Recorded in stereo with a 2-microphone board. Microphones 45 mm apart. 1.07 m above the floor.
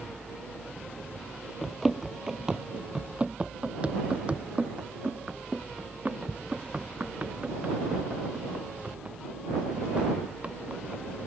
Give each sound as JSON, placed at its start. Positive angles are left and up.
{"t": 1.6, "sound": "running footsteps", "side_deg": 0}